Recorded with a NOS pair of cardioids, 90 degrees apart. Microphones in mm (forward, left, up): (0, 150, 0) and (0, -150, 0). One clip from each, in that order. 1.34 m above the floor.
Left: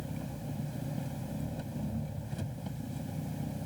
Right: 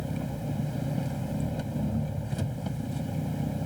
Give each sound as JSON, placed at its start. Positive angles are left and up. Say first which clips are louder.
{"t": 0.0, "sound": "an engine running", "louder": "right 7 dB", "azimuth_deg": -45}